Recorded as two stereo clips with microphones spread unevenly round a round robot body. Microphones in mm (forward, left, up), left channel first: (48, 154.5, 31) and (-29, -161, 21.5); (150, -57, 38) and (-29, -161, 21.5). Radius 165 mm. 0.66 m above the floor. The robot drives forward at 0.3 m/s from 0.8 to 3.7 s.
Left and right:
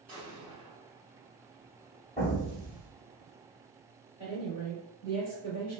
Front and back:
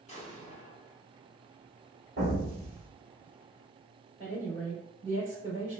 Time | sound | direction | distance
0.1 | an explosion | 10° right | 1.4 m
2.2 | an explosion | 150° left | 1.2 m
4.2 | a woman speaking | 155° left | 1.6 m